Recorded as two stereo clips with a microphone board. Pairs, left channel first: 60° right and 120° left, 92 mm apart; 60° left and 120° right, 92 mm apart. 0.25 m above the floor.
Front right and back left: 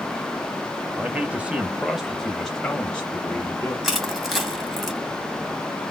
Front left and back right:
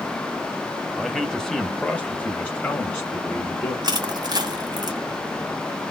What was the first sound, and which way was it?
A man speaking, 145° left.